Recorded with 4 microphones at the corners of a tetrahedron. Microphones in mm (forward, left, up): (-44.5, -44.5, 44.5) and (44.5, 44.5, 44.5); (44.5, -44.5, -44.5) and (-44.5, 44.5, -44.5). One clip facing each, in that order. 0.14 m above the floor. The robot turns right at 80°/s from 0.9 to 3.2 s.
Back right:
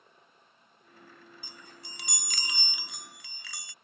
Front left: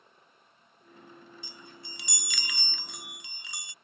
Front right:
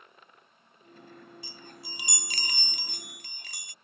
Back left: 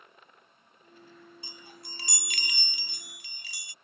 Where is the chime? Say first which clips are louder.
Front left 2 dB, front right 2 dB; 165° right; by 3.7 s 20° right.